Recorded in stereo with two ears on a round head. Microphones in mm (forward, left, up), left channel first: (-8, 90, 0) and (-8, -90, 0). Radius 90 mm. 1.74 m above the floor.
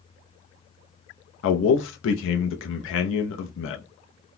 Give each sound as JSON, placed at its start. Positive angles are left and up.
{"t": 1.4, "sound": "a man speaking", "side_deg": 70, "distance_m": 0.5}